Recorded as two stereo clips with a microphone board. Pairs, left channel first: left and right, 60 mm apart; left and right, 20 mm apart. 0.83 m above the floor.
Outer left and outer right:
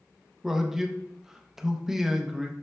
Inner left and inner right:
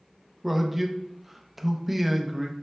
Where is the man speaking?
5° right (ahead or behind), 0.6 m.